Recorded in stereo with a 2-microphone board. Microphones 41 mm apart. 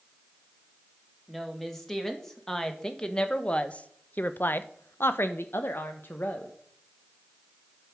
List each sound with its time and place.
1.3 s a woman speaking: centre (ahead or behind), 1.9 m; by 6.5 s 50° left (ahead or behind), 1.1 m